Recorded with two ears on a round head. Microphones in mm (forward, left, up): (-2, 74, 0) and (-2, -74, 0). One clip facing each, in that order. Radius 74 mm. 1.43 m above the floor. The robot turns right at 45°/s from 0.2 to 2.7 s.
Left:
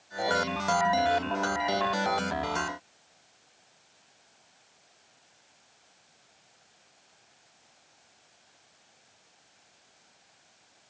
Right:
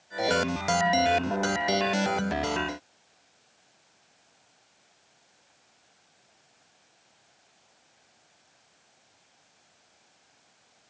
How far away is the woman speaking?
I don't hear a woman speaking.